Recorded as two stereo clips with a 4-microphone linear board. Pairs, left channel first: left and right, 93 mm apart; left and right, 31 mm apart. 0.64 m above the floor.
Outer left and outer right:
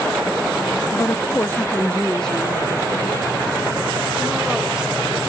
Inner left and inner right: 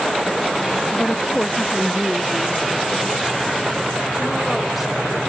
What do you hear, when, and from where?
0.9 s a woman speaking: 35° left (ahead or behind), 0.6 m; by 5.2 s 10° right (ahead or behind), 2.5 m